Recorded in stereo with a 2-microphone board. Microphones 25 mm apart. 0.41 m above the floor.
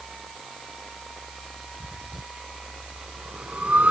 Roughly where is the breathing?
Right.